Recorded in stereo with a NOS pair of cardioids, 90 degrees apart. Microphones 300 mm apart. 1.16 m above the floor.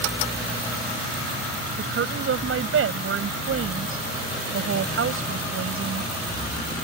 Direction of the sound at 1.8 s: 50° right.